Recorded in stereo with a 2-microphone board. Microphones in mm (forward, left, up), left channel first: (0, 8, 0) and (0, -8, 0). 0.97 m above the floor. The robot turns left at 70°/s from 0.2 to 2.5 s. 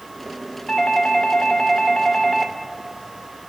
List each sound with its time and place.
0.7 s a doorbell: 110° left, 1.6 m; by 2.5 s 15° right, 1.6 m